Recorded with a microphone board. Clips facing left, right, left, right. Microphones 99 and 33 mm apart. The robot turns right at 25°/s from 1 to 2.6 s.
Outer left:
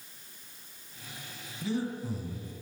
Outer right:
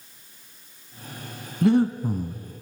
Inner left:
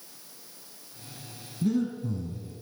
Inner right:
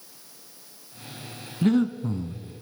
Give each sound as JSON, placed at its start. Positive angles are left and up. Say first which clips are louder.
{"t": 1.6, "sound": "breathing", "louder": "outer right 13 dB, inner right 5 dB", "side_deg": -60, "distance_m": 0.8}